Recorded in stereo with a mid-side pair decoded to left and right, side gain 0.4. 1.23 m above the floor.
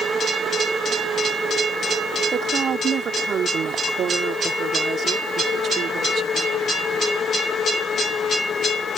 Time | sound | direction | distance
2.3 | a woman speaking | 65° right | ?